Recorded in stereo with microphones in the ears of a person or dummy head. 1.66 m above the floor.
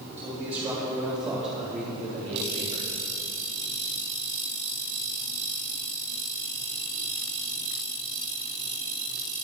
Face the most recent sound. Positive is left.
turn(degrees=-35)  # may be behind; listen again after turning